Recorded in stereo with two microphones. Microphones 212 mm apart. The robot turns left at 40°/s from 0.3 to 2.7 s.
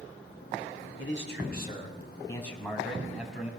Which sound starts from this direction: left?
A man speaking, at 1.0 s.